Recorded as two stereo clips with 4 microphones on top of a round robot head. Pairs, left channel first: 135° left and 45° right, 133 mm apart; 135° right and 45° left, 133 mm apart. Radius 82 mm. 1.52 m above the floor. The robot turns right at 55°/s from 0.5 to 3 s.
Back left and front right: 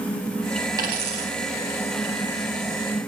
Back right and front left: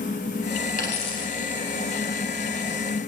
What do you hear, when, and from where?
0.8 s a dropped coin: 100° right, 4 m; by 1.3 s 70° right, 4 m